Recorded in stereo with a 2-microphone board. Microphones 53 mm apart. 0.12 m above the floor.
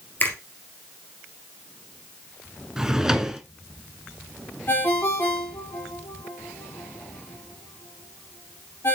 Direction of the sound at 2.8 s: 10° right (ahead or behind).